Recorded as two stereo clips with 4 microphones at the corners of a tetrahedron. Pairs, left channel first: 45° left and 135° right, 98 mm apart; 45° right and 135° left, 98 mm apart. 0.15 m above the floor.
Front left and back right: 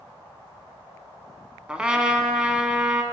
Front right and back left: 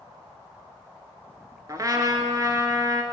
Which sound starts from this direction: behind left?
A trumpet, at 1.7 s.